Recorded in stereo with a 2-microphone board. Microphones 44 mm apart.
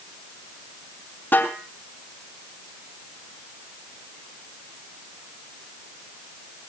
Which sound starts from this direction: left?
A snare drum, at 1.3 s.